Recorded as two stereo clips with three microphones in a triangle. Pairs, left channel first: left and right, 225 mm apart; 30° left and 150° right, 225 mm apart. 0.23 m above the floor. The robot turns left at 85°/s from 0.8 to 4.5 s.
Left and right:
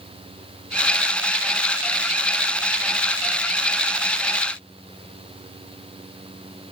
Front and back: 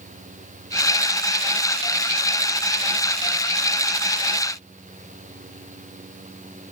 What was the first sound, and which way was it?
Only background noise.